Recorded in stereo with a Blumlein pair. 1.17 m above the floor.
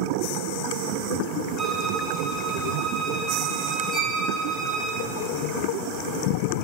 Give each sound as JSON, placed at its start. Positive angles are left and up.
{"t": 1.6, "sound": "a violin", "azimuth_deg": -10, "distance_m": 0.8}
{"t": 3.9, "sound": "a violin", "azimuth_deg": 20, "distance_m": 0.9}